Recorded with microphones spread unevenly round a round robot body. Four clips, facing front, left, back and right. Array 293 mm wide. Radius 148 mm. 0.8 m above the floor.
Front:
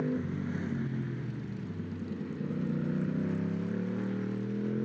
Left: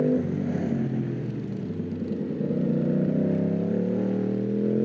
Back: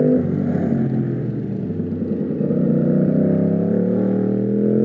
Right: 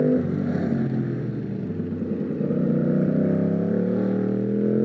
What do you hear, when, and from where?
0.0 s a motorcycle: 170° right